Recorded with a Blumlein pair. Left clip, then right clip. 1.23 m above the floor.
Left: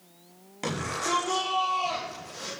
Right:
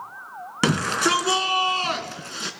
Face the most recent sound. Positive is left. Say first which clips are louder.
# right 9 dB
turn(degrees=-55)